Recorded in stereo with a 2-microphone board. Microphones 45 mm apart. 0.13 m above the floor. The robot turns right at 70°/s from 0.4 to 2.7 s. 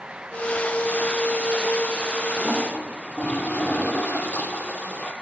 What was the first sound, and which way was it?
A toilet flushing, 15° left (ahead or behind).